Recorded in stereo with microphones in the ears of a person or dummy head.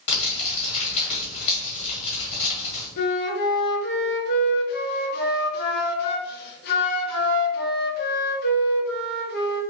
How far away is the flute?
About 0.9 m.